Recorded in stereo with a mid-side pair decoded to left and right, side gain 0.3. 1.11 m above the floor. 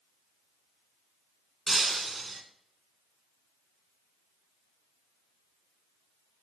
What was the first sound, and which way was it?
Breaking glass, 45° right.